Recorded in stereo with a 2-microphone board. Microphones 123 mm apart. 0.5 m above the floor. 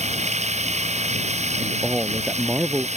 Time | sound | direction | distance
0.0 | running water | 70° right (ahead or behind) | ?
1.6 | a man speaking | 10° right (ahead or behind) | ?